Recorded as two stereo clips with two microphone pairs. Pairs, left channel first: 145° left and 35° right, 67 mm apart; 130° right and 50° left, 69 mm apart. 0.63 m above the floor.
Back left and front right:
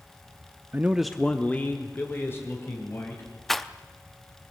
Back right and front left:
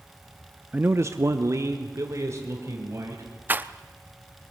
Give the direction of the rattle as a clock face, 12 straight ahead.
10 o'clock.